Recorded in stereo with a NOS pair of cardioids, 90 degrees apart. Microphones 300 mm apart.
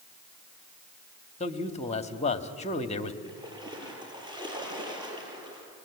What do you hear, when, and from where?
1.4 s a man speaking: 20° left, 2 m
3.2 s a splash: 15° right, 7 m